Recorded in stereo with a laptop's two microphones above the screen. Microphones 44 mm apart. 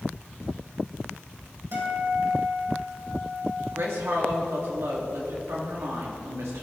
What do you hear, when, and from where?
1.7 s a guitar: 85° right, 3 m
3.7 s a woman speaking: 75° right (ahead or behind), 1.8 m